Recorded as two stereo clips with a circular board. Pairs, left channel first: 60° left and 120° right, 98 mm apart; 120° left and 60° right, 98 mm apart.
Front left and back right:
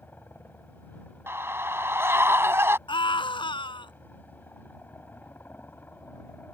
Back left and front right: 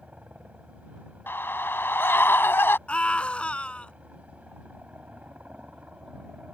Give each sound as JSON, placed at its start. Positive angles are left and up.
{"t": 0.0, "sound": "a helicopter", "azimuth_deg": 5}
{"t": 1.3, "sound": "a scream", "azimuth_deg": 180}
{"t": 2.9, "sound": "a scream", "azimuth_deg": 45}